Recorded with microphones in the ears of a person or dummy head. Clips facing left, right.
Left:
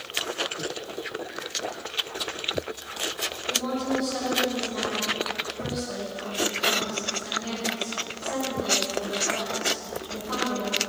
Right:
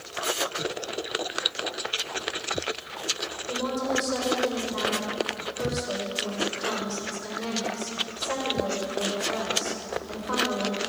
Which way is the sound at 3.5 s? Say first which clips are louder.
Even; 70° right (ahead or behind).